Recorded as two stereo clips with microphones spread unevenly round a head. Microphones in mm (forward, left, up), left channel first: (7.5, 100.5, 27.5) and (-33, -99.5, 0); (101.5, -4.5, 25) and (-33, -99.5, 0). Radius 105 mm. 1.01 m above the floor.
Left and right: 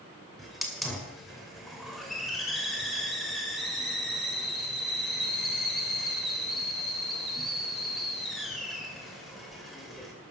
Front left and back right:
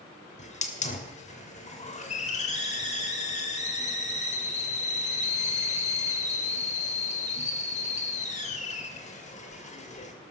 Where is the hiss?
10° right, 2.5 m.